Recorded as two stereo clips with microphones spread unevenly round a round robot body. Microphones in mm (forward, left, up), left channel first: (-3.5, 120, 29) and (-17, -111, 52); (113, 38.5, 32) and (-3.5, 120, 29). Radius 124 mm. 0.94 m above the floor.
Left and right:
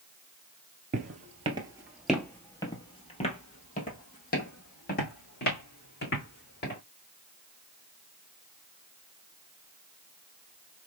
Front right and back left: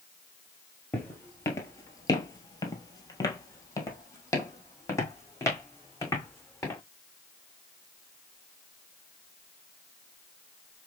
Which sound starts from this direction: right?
Footsteps, at 0.9 s.